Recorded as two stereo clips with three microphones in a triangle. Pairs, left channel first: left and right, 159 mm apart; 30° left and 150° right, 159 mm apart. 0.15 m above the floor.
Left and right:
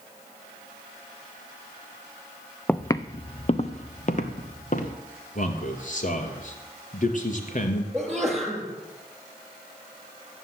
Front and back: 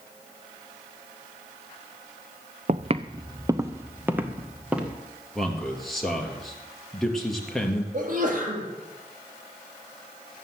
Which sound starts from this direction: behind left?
A man speaking, at 5.3 s.